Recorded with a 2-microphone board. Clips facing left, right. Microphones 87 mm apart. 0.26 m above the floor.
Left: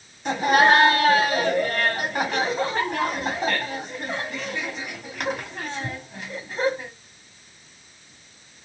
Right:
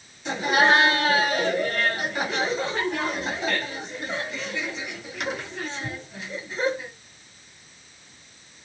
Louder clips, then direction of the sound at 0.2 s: Left 3 dB; 50° left (ahead or behind).